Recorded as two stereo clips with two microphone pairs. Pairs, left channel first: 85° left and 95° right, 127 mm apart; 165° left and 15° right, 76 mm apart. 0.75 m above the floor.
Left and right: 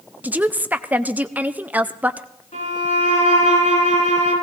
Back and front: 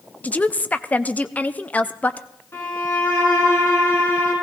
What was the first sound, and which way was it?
A woman speaking, 160° right.